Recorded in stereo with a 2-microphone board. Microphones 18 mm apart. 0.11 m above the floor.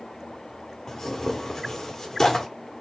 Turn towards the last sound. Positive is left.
turn(degrees=30)  # may be behind; listen again after turning